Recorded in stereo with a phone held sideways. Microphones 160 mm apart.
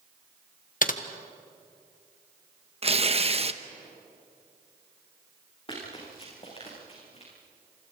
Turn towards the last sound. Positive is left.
turn(degrees=40)  # may be behind; listen again after turning